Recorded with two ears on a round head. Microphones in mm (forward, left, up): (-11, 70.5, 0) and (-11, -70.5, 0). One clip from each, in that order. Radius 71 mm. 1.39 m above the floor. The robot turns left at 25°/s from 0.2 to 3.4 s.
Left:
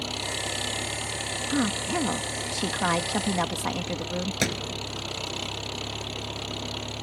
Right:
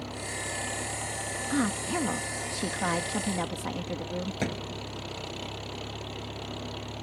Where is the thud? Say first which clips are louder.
Left 5 dB; 70° left (ahead or behind).